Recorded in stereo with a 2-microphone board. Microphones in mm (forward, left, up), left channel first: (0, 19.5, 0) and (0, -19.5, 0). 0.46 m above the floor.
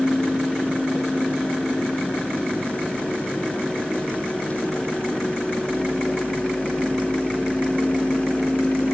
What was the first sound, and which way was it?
Only background noise.